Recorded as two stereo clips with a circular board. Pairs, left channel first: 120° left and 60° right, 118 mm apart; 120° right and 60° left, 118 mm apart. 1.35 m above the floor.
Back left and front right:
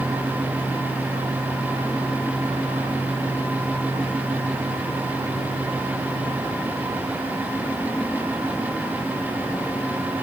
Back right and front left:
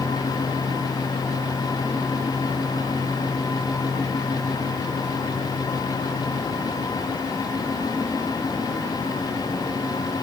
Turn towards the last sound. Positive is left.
No sound to turn to.